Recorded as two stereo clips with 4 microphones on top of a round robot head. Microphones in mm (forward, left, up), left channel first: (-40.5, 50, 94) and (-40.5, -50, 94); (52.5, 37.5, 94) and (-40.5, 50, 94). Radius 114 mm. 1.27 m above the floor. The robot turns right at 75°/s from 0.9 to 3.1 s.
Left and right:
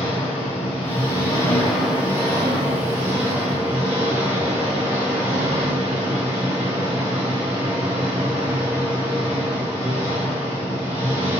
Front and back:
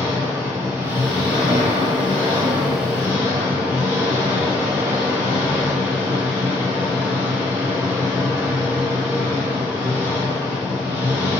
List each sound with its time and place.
0.0 s an engine running: 115° left, 1.2 m; by 11.4 s 80° right, 1.2 m